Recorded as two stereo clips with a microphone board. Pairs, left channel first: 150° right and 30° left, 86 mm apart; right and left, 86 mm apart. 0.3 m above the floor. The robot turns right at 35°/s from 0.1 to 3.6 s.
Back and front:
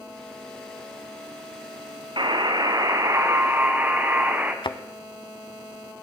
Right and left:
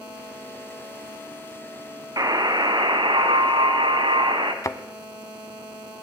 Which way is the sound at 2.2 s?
50° left.